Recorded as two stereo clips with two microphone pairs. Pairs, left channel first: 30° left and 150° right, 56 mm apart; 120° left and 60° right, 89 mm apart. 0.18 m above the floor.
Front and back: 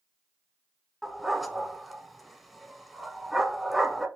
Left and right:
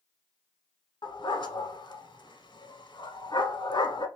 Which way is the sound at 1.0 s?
130° left.